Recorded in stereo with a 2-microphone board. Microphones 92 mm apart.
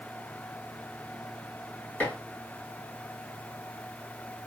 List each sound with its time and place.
2.0 s dishes clattering: 15° left (ahead or behind), 2.5 m